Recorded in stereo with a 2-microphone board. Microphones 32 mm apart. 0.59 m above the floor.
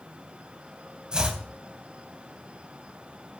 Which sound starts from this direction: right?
Chopping, at 1.1 s.